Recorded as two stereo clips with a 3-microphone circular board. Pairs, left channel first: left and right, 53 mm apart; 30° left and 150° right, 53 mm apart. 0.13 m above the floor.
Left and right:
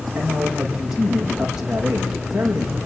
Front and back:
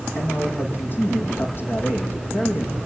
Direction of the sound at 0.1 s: 10° right.